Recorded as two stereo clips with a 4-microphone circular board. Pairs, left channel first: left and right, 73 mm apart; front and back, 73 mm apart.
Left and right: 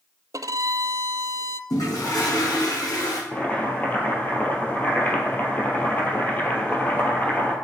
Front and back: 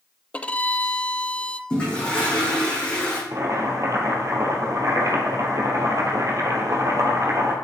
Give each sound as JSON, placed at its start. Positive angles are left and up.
{"t": 0.3, "sound": "a violin", "azimuth_deg": -70, "distance_m": 0.5}
{"t": 1.7, "sound": "a toilet flushing", "azimuth_deg": 75, "distance_m": 5.0}
{"t": 3.3, "sound": "boiling", "azimuth_deg": 150, "distance_m": 2.5}